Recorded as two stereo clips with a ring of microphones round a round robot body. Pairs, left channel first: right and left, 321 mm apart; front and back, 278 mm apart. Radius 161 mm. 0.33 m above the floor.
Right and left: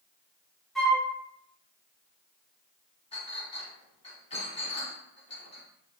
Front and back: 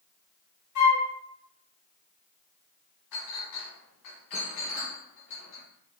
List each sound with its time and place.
0.8 s a flute: straight ahead, 1.8 m
3.1 s a clink: 20° right, 1.6 m